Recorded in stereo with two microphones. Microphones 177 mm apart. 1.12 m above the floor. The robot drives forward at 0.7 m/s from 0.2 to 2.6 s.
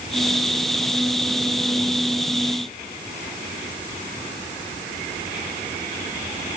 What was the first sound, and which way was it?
Only background noise.